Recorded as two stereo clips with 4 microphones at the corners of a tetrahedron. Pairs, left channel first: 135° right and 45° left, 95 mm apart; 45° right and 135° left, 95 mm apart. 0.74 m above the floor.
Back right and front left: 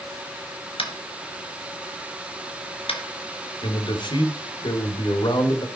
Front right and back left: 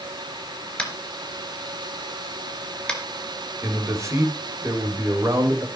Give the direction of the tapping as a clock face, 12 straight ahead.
4 o'clock.